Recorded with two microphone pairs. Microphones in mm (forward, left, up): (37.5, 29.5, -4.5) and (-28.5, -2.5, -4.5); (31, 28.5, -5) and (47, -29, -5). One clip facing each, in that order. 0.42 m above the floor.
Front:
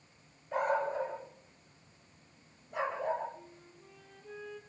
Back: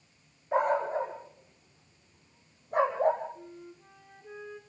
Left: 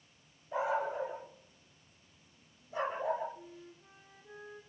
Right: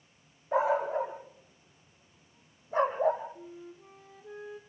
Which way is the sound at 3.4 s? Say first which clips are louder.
Back 7 dB, right 5 dB; 75° right.